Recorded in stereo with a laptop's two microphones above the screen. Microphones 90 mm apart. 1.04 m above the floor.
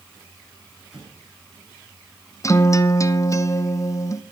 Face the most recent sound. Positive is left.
turn(degrees=35)  # may be behind; listen again after turning